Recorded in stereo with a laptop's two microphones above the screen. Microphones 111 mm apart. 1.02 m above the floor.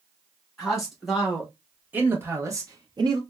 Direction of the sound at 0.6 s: Centre (ahead or behind).